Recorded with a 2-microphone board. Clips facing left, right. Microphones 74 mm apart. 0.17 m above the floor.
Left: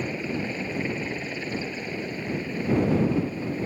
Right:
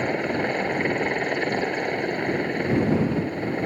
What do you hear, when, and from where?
0.0 s a helicopter: 60° right (ahead or behind)